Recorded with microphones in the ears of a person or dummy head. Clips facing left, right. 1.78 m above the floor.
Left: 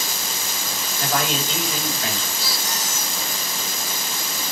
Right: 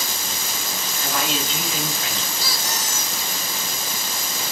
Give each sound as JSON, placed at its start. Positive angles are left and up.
{"t": 1.0, "sound": "a man speaking", "side_deg": 50, "distance_m": 6.0}
{"t": 2.4, "sound": "a squeak", "side_deg": -45, "distance_m": 0.9}